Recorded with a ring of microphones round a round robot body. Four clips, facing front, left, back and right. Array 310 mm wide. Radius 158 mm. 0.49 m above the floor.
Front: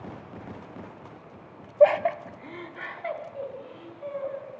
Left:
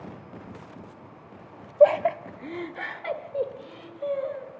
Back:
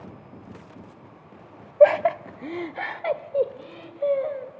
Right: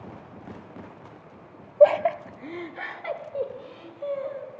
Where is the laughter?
170° right, 0.8 m; by 4.5 s 170° left, 3 m.